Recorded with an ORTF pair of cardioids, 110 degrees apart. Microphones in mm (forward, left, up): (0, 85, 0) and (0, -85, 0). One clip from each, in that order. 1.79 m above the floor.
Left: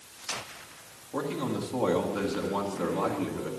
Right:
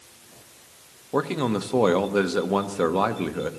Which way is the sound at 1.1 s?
55° right.